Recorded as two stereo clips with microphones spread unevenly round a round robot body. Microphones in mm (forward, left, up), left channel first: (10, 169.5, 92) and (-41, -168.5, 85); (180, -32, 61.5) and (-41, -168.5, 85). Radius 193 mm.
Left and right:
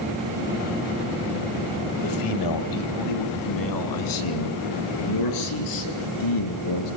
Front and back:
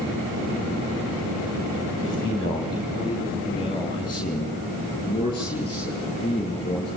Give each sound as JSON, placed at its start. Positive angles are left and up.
{"t": 2.0, "sound": "a man speaking", "azimuth_deg": 105, "distance_m": 3.0}